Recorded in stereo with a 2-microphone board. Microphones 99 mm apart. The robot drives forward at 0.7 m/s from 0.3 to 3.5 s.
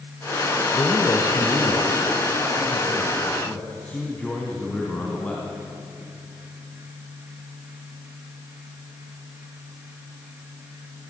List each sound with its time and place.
0.7 s a man speaking: 30° left (ahead or behind), 1.5 m; by 5.5 s 15° left (ahead or behind), 3 m